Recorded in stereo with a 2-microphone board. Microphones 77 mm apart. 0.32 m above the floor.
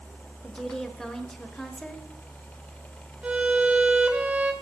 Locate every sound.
0.4 s a woman speaking: 5° left (ahead or behind), 1.1 m
3.2 s a violin: 15° right (ahead or behind), 0.9 m